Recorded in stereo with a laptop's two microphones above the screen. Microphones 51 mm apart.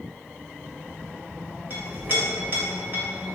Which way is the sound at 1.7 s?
50° right (ahead or behind).